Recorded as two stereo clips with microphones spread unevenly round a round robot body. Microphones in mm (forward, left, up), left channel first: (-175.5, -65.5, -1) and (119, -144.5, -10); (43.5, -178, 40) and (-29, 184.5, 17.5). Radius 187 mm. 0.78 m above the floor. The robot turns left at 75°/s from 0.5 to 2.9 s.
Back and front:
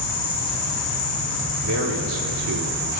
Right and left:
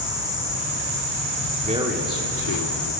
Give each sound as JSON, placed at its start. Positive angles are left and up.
{"t": 0.0, "sound": "an insect", "azimuth_deg": 180, "distance_m": 6.0}
{"t": 1.6, "sound": "a man speaking", "azimuth_deg": 35, "distance_m": 2.5}